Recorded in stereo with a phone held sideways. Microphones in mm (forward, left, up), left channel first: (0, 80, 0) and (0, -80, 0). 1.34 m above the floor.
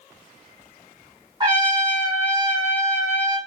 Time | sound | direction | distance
1.4 | a trumpet | 30° right (ahead or behind) | 2.0 m